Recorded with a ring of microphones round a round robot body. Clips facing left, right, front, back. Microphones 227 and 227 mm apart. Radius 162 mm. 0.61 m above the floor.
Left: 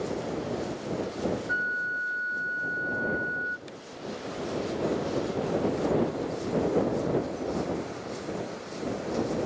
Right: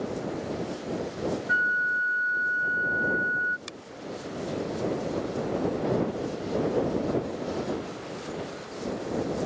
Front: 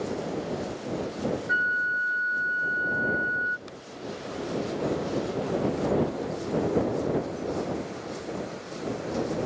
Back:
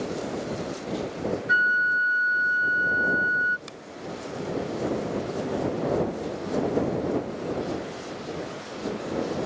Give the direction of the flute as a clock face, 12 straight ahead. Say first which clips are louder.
Right 1 dB, back 2 dB; 5 o'clock.